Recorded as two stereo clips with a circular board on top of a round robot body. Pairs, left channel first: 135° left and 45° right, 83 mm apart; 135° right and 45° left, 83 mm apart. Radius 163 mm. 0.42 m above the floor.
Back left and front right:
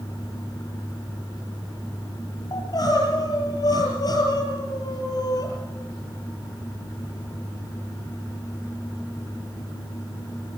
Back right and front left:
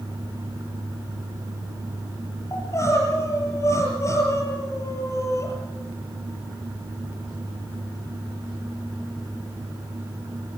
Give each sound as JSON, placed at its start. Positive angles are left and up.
{"t": 2.5, "sound": "crying", "azimuth_deg": 170, "distance_m": 6.5}